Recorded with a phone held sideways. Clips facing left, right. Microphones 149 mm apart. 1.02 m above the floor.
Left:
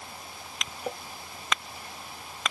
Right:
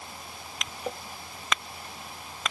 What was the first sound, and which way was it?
Only background noise.